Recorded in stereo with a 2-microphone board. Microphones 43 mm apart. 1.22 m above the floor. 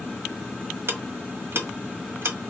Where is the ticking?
60° right (ahead or behind), 1.3 m.